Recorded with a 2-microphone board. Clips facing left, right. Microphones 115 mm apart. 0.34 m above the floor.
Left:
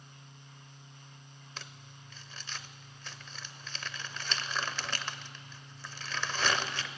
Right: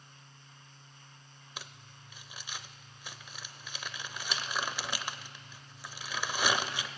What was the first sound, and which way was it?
Crumpling, 15° right (ahead or behind).